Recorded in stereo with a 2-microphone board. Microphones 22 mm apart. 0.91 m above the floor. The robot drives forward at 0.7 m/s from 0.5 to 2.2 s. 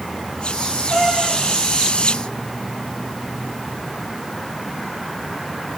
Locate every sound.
0.9 s a cat meowing: 5° left (ahead or behind), 8.5 m; by 1.4 s centre (ahead or behind), 9 m